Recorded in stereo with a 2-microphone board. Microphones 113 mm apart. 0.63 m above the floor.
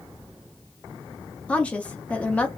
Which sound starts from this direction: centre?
A woman speaking, at 1.5 s.